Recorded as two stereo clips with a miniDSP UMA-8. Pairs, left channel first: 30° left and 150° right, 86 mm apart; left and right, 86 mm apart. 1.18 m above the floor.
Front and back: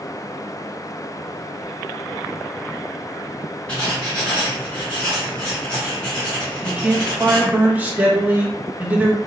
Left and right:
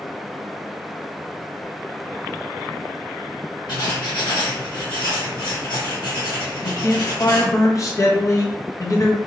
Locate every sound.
3.7 s writing: 105° left, 1.1 m
6.6 s a man speaking: 140° left, 0.6 m